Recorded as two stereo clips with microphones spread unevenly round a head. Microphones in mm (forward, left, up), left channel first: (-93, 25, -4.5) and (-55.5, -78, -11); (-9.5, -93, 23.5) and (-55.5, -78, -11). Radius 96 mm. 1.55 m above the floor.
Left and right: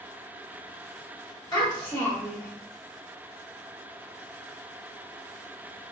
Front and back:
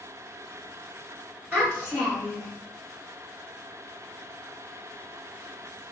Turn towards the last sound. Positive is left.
turn(degrees=60)